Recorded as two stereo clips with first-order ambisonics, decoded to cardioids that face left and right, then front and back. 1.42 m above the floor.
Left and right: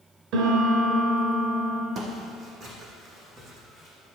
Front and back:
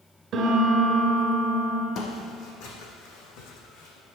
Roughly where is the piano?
Behind right.